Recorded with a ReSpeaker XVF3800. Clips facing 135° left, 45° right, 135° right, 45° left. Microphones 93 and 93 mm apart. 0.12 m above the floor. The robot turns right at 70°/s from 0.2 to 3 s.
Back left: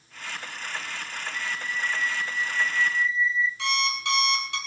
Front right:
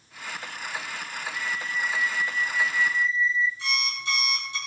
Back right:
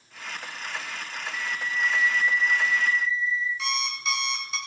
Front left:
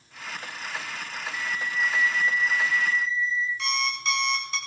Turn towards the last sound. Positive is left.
turn(degrees=135)